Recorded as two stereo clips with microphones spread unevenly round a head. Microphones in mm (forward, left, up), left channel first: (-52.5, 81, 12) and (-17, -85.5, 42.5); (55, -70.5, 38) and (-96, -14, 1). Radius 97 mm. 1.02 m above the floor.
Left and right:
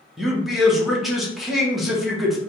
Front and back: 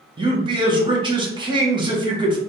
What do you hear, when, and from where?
0.2 s a man speaking: 175° right, 1.0 m